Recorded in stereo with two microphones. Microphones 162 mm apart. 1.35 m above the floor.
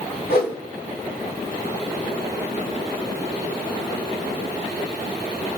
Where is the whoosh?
65° left (ahead or behind), 2 m.